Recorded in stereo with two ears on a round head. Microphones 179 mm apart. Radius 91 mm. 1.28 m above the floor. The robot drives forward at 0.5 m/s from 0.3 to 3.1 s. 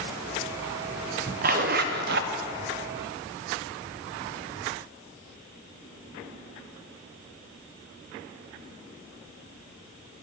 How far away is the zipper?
About 0.8 m.